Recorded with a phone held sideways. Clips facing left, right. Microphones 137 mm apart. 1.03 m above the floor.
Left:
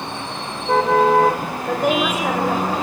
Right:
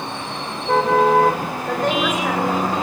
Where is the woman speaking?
10° left (ahead or behind), 5.5 m.